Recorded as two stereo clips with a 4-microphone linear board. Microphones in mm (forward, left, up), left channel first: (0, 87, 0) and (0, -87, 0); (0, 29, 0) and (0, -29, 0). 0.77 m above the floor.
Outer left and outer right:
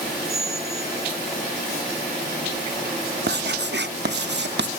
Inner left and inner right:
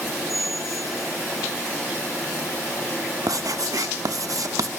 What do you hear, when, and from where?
0.3 s a squeak: centre (ahead or behind), 1.7 m
3.3 s writing: 80° right, 0.6 m